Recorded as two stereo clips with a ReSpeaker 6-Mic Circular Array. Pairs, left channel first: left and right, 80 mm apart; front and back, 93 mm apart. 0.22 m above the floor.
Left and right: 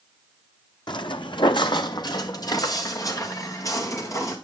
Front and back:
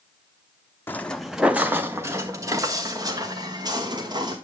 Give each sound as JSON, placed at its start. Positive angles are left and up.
{"t": 0.9, "sound": "footsteps", "azimuth_deg": 65, "distance_m": 0.7}